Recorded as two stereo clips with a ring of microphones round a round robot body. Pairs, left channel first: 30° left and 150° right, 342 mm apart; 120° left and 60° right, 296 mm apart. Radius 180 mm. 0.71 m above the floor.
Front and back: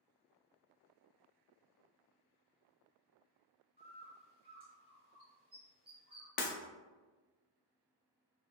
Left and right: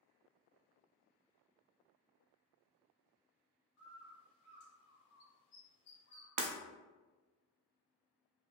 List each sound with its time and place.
3.8 s a bird: 140° left, 1.3 m
6.4 s breaking glass: 35° right, 0.6 m